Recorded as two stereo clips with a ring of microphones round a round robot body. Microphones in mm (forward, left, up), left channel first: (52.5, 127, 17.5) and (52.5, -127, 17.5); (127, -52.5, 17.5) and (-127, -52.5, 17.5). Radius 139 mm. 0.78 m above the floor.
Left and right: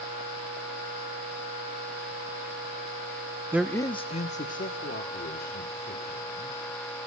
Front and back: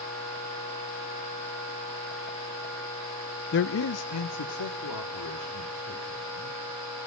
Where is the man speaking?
15° right, 0.6 m; by 7.0 s 35° left, 4.5 m.